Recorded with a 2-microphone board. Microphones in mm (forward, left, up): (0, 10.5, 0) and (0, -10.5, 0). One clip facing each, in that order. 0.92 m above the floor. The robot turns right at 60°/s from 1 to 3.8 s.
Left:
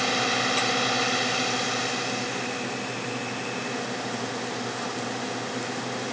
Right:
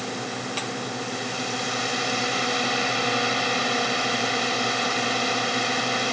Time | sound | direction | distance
0.0 | a drone | 135° left | ?